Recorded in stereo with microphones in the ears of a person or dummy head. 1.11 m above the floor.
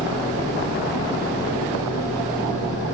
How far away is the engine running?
About 3 m.